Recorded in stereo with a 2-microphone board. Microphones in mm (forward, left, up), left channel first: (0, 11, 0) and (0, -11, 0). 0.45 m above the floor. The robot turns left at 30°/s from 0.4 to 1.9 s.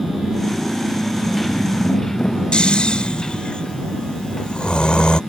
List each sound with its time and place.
0.0 s a motorcycle: 35° right (ahead or behind); by 5.3 s 20° left (ahead or behind)
2.5 s snoring: 50° left (ahead or behind)